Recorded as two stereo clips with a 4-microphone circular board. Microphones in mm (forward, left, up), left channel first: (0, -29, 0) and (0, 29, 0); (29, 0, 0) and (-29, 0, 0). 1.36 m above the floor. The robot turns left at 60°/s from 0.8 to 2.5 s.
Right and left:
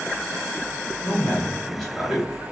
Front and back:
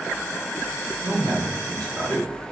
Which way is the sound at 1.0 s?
130° right.